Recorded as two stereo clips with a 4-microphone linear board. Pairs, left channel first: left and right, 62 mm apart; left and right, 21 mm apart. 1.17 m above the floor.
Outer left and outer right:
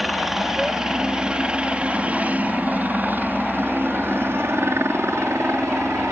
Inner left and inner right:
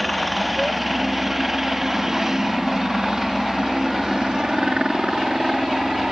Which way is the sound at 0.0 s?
5° right (ahead or behind).